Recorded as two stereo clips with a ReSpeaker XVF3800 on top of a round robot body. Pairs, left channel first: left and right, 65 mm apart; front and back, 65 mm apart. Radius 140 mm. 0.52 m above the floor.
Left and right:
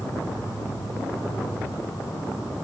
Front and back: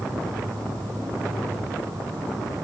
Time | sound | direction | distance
0.0 | an insect | 140° left | 10 m